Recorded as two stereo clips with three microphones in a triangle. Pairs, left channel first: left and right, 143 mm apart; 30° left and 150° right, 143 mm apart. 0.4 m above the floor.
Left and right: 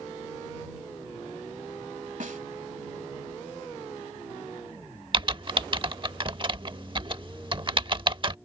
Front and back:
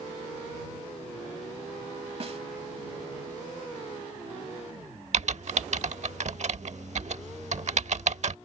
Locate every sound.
2.2 s a snare drum: 110° right
5.1 s typing on a keyboard: 135° right